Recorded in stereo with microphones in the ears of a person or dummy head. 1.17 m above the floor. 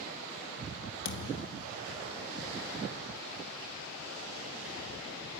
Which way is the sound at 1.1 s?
65° left (ahead or behind).